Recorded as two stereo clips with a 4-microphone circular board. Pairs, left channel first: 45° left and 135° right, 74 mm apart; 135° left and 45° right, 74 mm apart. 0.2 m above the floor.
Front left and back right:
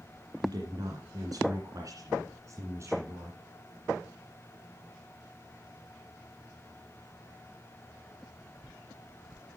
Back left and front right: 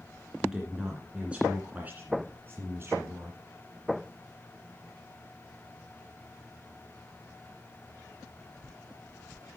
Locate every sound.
0.4 s a woman speaking: 125° right, 2.5 m; by 3.4 s 85° right, 2.5 m